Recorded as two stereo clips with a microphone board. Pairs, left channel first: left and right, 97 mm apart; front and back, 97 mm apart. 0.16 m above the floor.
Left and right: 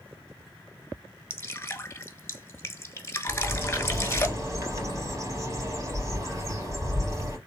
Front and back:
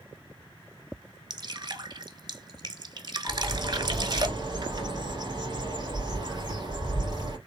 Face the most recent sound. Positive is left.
turn(degrees=-140)